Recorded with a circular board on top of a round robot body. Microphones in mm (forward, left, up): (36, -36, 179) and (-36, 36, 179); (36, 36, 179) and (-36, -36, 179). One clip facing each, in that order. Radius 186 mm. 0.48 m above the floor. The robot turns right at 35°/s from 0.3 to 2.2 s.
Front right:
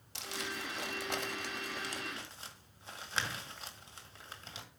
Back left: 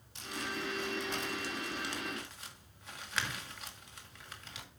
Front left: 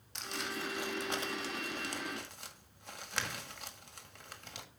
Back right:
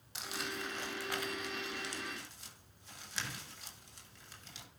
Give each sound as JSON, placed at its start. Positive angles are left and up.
{"t": 0.1, "sound": "crumpling", "azimuth_deg": -50, "distance_m": 1.8}